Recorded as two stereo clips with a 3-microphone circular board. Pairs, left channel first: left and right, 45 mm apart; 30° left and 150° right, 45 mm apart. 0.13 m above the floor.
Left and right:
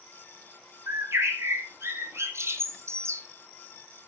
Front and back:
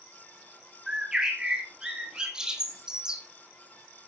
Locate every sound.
0.9 s a bird: 75° right, 2.5 m